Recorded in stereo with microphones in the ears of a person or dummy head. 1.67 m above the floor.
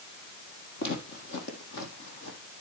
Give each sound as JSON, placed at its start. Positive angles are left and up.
{"t": 0.8, "sound": "footsteps", "side_deg": 55, "distance_m": 3.0}